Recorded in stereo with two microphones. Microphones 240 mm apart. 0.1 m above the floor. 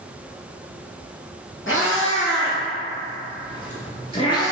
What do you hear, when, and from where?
1.7 s a cat meowing: 65° left (ahead or behind), 1.9 m; by 4.5 s 15° left (ahead or behind), 0.8 m